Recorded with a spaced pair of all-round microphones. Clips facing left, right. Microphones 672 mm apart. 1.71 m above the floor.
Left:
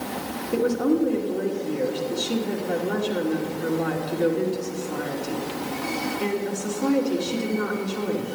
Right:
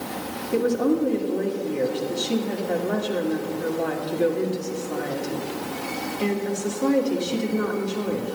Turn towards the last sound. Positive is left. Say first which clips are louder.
# even
turn(degrees=-10)  # may be behind; listen again after turning